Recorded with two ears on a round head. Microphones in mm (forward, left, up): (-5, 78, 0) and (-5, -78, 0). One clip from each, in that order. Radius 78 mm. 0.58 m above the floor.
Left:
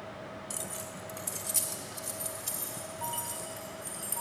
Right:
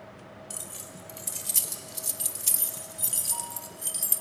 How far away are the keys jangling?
About 1.9 m.